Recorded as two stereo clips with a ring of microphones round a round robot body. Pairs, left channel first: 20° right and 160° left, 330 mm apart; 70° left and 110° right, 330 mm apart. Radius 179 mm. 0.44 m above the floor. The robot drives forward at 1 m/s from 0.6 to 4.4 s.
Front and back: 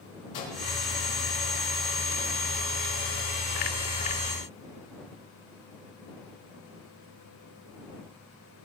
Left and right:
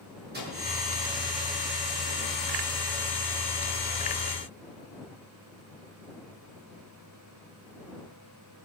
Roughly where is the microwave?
Ahead right.